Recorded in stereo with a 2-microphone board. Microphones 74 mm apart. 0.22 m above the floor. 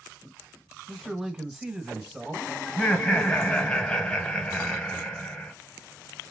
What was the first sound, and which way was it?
A man speaking, 10° right (ahead or behind).